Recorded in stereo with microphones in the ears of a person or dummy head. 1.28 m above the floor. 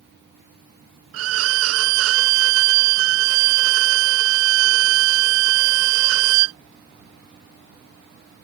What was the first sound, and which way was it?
A violin, 70° right (ahead or behind).